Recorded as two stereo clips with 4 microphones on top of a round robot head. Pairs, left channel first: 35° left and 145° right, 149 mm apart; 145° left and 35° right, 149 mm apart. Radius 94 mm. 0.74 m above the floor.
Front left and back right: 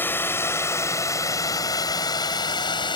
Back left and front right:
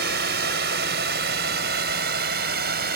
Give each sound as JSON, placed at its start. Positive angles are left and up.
{"t": 0.0, "sound": "a drone", "azimuth_deg": -40}